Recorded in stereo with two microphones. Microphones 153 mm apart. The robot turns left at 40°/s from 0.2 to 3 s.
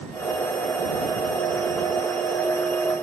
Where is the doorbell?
No doorbell in this recording.